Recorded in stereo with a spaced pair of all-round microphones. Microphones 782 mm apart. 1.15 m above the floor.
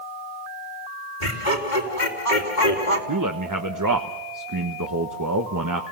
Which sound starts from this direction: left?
Laughter, at 1.2 s.